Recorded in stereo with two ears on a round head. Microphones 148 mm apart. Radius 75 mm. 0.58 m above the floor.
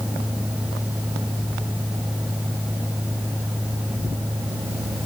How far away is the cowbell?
No cowbell in this recording.